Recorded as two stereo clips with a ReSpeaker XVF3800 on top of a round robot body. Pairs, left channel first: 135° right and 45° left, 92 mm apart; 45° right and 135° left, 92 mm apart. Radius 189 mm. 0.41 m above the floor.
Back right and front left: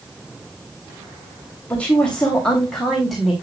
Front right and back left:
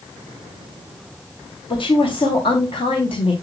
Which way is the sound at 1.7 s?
60° right.